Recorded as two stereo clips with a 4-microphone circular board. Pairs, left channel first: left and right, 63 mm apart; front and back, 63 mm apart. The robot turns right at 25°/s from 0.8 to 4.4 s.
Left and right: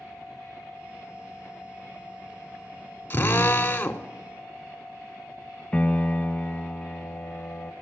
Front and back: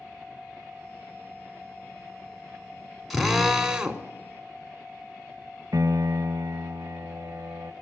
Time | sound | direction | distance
3.1 | a drill | 95° left | 0.8 m
5.7 | a piano | 160° left | 0.7 m